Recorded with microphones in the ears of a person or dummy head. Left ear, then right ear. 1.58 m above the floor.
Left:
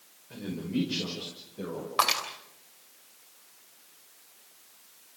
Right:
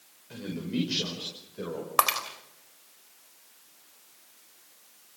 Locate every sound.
0.3 s a man speaking: 45° right (ahead or behind), 6 m
2.0 s breaking glass: 25° right (ahead or behind), 3 m